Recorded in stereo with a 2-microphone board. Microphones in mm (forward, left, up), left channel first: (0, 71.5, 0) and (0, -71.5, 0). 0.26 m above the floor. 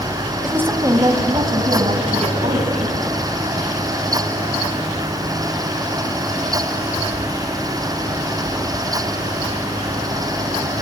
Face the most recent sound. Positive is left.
turn(degrees=-50)  # may be behind; listen again after turning